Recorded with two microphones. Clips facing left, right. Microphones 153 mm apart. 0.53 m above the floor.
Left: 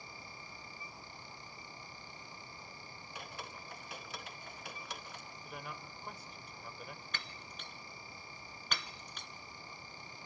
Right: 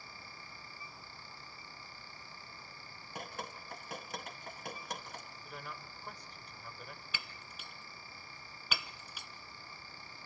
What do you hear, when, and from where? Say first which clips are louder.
3.1 s dripping: right 4 dB; 50° right (ahead or behind), 2 m
5.4 s a man speaking: left 3 dB; 5° left (ahead or behind), 1.9 m
7.1 s breaking glass: left 1 dB; 5° right (ahead or behind), 0.7 m